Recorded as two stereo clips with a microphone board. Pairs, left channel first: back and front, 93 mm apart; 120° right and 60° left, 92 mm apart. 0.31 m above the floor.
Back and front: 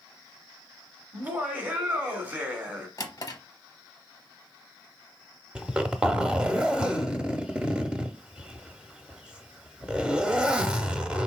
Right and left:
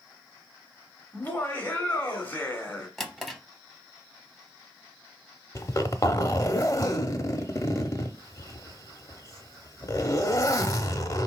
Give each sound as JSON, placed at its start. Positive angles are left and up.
{"t": 1.1, "sound": "laughter", "azimuth_deg": -60, "distance_m": 1.1}
{"t": 3.0, "sound": "a drawer", "azimuth_deg": 150, "distance_m": 0.8}
{"t": 5.5, "sound": "a zipper", "azimuth_deg": -75, "distance_m": 0.7}